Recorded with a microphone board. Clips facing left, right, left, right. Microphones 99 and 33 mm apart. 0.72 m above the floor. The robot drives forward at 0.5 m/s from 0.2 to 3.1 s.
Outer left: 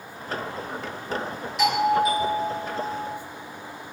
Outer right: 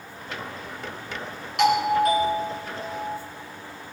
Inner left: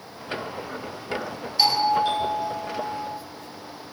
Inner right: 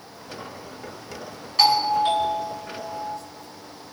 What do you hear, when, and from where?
1.6 s a doorbell: 65° right (ahead or behind), 4 m; by 3.2 s 60° right (ahead or behind), 4.5 m